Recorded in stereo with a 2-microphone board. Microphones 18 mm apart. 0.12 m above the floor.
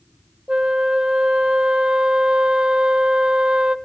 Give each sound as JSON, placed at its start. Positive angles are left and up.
{"t": 0.5, "sound": "a flute", "side_deg": -75, "distance_m": 0.7}